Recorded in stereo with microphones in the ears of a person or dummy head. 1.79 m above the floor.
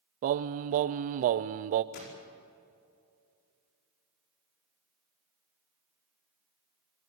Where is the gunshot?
60° left (ahead or behind), 5 m.